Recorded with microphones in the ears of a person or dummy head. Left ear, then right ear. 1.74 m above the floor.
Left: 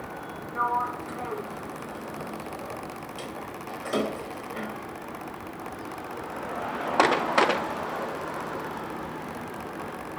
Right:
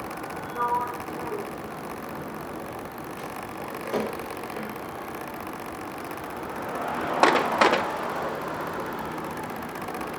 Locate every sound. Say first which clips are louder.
0.6 s a sliding door: even; 35° left (ahead or behind), 1.3 m